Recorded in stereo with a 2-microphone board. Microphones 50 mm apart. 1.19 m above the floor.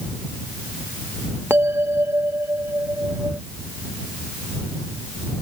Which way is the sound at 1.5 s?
55° right (ahead or behind).